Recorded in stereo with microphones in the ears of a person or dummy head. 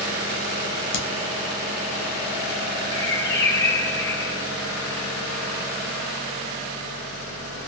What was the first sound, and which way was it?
A crack, 70° left (ahead or behind).